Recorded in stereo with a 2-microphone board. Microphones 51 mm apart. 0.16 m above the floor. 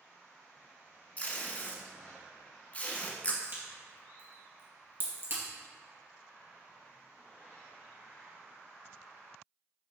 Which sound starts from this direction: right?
A crack, at 3.4 s.